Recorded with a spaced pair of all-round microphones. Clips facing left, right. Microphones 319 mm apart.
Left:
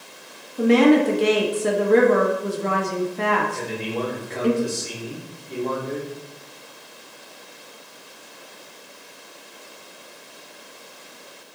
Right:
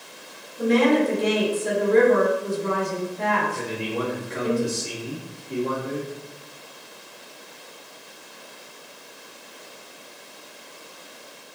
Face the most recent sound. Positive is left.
turn(degrees=-15)  # may be behind; listen again after turning